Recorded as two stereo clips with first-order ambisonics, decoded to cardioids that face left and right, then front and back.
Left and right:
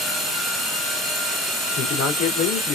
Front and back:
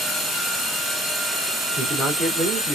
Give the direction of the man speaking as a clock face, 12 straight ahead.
8 o'clock.